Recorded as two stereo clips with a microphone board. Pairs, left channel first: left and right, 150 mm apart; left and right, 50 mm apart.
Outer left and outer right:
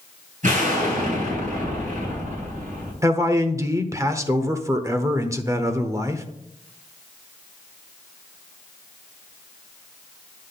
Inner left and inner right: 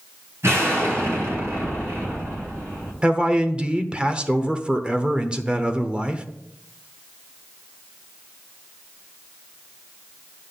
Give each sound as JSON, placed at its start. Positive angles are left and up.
{"t": 0.4, "sound": "an explosion", "side_deg": -60, "distance_m": 4.0}
{"t": 3.0, "sound": "a man speaking", "side_deg": -20, "distance_m": 1.0}